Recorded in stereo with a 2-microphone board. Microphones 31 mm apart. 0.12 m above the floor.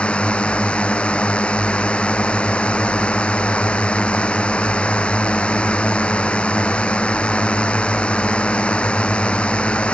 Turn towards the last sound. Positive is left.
turn(degrees=35)  # may be behind; listen again after turning